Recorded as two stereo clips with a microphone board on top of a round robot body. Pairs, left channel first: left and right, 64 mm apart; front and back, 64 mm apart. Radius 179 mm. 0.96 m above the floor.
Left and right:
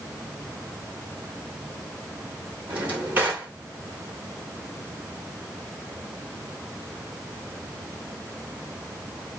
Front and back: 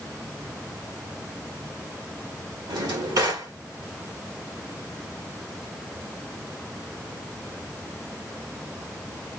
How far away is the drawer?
About 2.0 m.